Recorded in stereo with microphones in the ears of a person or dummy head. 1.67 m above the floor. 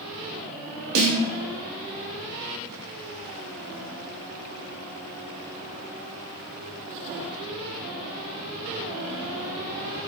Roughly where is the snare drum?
Right.